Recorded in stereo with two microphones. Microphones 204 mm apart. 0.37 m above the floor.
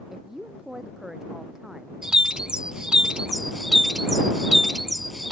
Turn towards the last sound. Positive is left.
turn(degrees=-5)  # may be behind; listen again after turning